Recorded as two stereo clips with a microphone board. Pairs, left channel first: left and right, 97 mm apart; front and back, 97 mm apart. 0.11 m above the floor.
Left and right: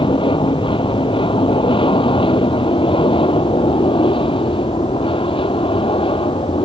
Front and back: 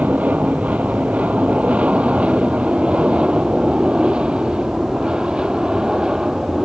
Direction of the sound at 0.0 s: 105° left.